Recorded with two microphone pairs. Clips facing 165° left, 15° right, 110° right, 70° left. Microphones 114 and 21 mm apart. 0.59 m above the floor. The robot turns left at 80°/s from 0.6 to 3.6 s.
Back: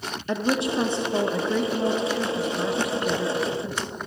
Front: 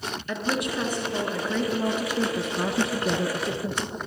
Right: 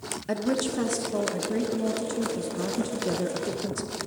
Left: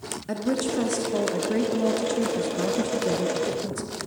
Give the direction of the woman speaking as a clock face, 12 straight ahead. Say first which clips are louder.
Back 4 dB, left 1 dB; 6 o'clock.